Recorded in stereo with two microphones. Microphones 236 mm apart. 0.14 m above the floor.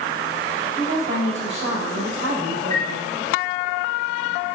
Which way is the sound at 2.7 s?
35° right (ahead or behind).